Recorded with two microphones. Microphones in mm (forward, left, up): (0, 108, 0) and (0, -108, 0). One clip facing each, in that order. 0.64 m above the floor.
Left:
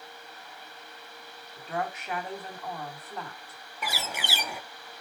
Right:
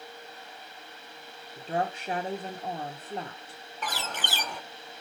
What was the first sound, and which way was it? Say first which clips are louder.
A woman speaking: right 3 dB; 30° right (ahead or behind).